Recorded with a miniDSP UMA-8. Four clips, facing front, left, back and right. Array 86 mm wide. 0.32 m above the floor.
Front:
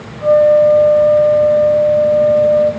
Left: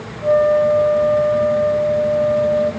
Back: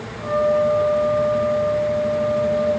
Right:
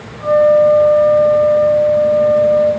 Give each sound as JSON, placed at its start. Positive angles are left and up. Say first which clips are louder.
{"t": 0.2, "sound": "a flute", "louder": "right 4 dB, front 10 dB", "azimuth_deg": -85, "distance_m": 6.5}